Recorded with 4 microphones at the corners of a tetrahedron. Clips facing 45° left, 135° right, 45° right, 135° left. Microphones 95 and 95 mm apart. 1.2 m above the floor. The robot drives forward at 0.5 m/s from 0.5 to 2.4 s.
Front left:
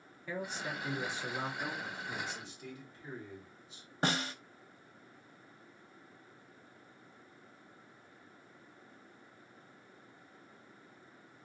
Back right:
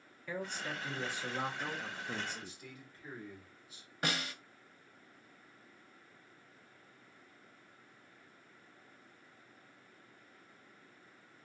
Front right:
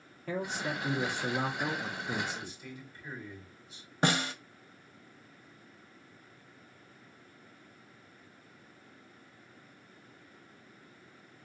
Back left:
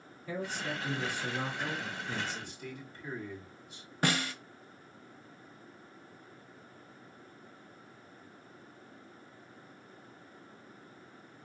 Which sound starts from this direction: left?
A man speaking, at 2.3 s.